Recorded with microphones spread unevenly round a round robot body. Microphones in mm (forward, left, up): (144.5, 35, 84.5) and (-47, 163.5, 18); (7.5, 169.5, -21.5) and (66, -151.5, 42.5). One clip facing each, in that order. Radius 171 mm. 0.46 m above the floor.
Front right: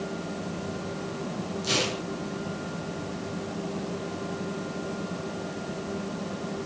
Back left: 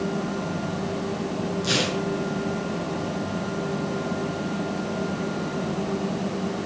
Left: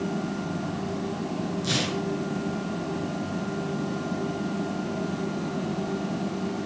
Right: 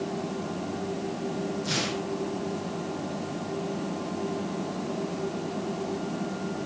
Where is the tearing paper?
70° left, 5 m.